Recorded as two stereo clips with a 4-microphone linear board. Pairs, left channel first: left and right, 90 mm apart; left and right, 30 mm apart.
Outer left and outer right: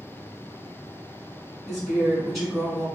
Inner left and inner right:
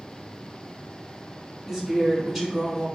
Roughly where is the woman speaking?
Centre.